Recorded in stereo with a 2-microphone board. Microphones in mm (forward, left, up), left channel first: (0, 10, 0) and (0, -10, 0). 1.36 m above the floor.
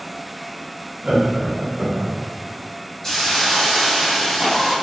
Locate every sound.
1.0 s laughter: 45° right (ahead or behind), 1.6 m; by 2.2 s 35° right (ahead or behind), 0.6 m
3.0 s a hiss: 35° left (ahead or behind), 1.6 m